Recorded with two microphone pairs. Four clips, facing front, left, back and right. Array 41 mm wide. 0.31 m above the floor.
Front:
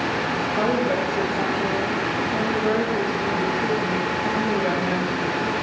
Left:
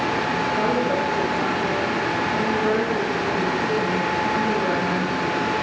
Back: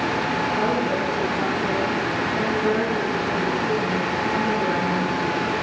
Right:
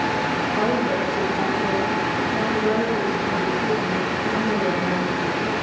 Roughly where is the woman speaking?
Ahead.